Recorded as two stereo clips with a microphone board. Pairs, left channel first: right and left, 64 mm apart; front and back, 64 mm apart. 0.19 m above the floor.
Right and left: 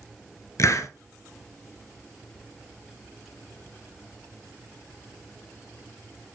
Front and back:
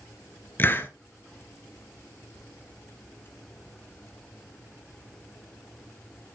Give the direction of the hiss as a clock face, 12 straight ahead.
2 o'clock.